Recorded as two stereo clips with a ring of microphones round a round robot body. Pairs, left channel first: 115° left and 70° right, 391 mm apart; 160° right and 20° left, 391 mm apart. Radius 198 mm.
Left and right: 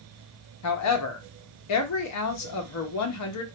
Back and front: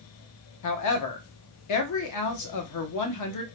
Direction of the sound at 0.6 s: 160° left.